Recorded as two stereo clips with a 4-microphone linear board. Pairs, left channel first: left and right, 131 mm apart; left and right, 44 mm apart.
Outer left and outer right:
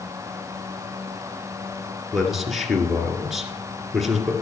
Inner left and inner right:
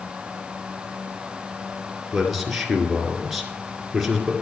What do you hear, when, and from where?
2.1 s a man speaking: centre (ahead or behind), 2 m